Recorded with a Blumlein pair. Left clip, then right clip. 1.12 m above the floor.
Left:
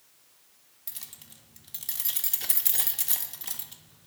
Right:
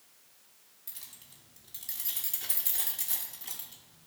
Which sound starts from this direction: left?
Keys jangling, at 0.9 s.